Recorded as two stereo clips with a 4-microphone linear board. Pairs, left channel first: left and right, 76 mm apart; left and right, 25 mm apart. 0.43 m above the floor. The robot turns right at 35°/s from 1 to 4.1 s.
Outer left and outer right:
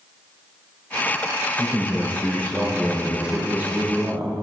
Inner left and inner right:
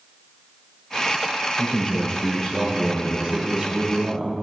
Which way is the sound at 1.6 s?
135° left.